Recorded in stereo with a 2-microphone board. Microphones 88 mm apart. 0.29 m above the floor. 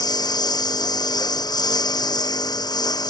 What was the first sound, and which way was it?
A lawn mower, 50° left (ahead or behind).